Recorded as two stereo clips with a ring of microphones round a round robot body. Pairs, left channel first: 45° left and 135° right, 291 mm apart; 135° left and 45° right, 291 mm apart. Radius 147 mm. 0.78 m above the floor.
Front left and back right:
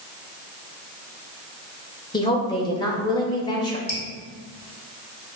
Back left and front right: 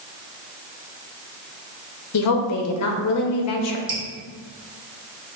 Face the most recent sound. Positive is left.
turn(degrees=5)